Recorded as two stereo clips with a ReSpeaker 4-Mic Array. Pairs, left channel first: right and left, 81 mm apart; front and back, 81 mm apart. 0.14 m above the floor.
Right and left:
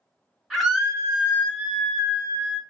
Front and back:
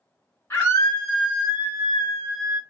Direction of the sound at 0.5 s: 5° left.